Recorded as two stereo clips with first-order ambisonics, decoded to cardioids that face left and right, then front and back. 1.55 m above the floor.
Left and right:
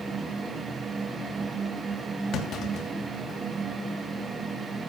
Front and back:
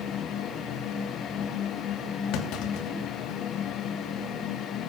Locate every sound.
2.3 s a clunk: 35° left, 3 m